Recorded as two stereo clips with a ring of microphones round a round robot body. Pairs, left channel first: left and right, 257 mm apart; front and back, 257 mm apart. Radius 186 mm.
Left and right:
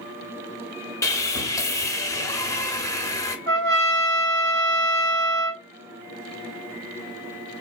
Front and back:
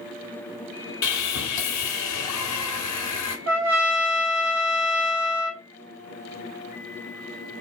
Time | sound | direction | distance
1.0 | sawing | 10° left | 1.2 m
3.5 | a trumpet | 145° right | 1.0 m